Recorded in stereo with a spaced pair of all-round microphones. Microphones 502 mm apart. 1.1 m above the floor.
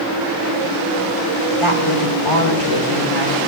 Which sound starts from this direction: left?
A woman speaking, at 1.6 s.